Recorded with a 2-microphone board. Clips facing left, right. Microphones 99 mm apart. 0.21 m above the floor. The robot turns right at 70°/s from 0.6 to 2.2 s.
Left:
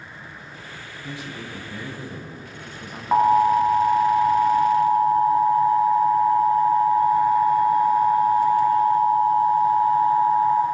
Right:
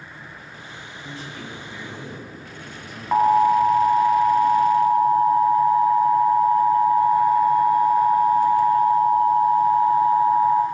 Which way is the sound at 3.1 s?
5° left (ahead or behind).